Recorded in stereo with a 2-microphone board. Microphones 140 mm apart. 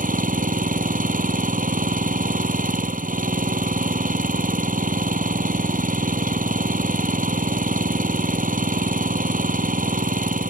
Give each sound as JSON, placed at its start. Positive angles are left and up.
{"t": 0.0, "sound": "an engine running", "side_deg": -75}